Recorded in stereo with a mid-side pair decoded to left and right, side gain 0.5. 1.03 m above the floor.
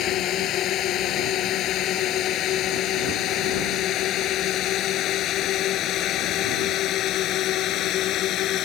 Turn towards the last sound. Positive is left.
turn(degrees=70)